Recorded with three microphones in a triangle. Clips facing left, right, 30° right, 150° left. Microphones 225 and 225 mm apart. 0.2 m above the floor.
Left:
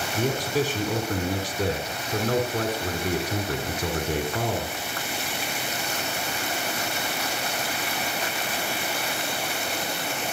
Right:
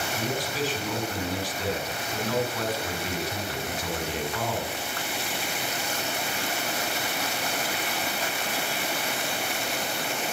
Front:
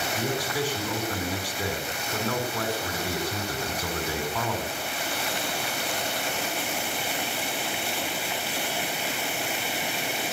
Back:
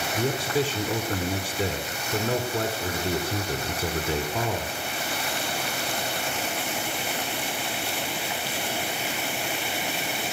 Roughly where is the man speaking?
Left.